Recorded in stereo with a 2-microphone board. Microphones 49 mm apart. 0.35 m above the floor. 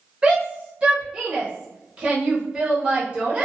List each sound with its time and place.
0.2 s a shout: 20° right (ahead or behind), 0.9 m